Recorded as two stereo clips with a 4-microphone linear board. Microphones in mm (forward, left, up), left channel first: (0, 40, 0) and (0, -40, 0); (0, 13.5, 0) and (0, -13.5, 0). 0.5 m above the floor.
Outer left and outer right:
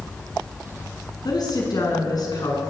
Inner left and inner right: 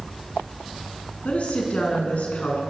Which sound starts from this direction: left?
A woman speaking, at 1.2 s.